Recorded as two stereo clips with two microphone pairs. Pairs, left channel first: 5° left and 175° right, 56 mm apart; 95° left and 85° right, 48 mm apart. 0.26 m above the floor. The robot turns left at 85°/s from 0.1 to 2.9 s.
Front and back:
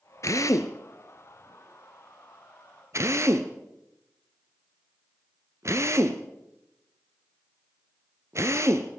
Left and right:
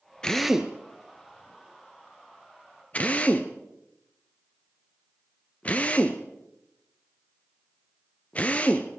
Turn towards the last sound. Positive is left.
turn(degrees=155)